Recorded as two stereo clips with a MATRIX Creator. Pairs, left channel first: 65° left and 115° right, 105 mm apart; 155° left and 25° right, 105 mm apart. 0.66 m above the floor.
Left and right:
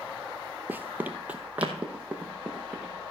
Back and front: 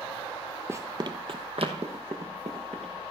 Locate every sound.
0.7 s running footsteps: 60° right, 0.7 m; by 2.9 s 30° right, 3 m